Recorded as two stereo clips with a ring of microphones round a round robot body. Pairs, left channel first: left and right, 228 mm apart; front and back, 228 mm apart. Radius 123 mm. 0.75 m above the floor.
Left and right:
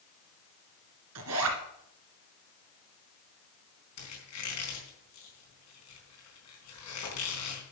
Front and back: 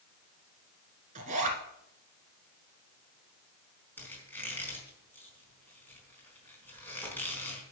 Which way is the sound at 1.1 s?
120° right.